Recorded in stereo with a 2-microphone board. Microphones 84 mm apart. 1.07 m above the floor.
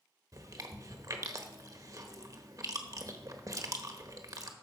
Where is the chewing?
45° right (ahead or behind), 1.1 m.